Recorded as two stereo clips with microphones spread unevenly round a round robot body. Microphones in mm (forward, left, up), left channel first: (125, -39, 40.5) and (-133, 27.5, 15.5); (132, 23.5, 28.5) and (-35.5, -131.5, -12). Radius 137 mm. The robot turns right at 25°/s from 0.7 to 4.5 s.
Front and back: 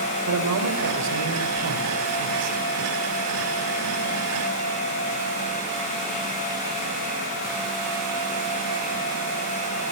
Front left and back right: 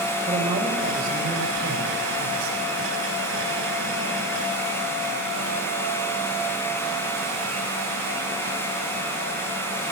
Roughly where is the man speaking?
Behind.